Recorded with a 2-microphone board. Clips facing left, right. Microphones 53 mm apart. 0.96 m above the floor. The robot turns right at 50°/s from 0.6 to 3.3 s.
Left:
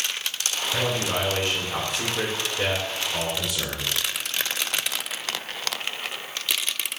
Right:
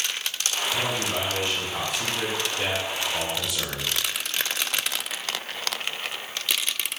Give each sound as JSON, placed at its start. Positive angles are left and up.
{"t": 0.7, "sound": "a man speaking", "azimuth_deg": 50, "distance_m": 2.5}